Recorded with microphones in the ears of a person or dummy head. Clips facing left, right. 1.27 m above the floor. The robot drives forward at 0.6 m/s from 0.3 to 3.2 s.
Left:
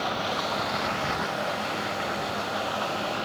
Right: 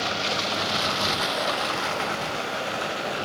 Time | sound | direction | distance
0.0 | running water | 30° right (ahead or behind) | 0.9 m